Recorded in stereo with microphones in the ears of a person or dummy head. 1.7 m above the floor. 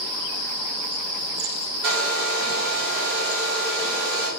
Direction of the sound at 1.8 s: 40° right (ahead or behind).